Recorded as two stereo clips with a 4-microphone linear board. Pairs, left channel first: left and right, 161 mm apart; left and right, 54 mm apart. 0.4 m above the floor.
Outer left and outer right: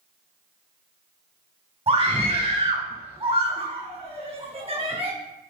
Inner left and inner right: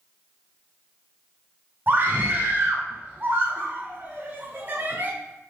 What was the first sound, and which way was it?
A scream, 35° right (ahead or behind).